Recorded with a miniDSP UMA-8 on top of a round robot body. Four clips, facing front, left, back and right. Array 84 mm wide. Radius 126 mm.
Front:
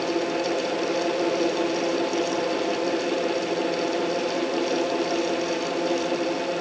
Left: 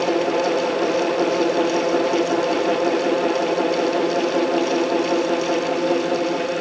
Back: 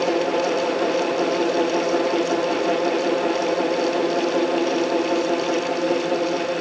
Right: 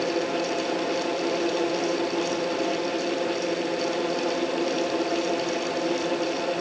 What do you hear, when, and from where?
Only background noise.